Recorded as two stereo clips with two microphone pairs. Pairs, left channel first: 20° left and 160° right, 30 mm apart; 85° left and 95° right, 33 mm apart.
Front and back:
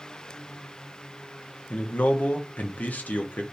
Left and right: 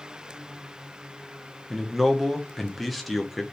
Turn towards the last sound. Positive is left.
turn(degrees=-5)